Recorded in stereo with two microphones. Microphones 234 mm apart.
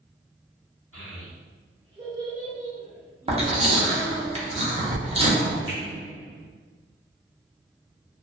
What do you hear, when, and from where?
0.9 s a child speaking: 70° right (ahead or behind), 1.4 m; by 4.3 s 25° left (ahead or behind), 1.2 m
3.3 s chewing: 25° right (ahead or behind), 0.7 m
5.7 s a finger snap: 65° right (ahead or behind), 1.5 m